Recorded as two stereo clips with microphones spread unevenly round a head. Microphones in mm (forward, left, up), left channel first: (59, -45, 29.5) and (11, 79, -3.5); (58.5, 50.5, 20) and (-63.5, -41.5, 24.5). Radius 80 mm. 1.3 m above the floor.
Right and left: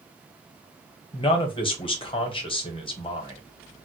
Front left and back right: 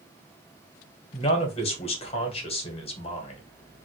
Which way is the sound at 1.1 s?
15° right.